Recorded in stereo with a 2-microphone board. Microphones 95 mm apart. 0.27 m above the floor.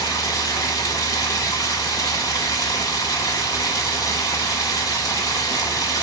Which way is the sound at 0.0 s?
40° left (ahead or behind).